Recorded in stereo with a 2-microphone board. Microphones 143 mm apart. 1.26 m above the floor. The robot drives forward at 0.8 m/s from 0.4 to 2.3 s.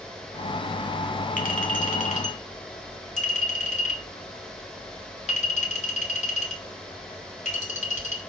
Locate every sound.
1.4 s a clink: 75° left (ahead or behind), 2.5 m; by 8.2 s 55° left (ahead or behind), 2.5 m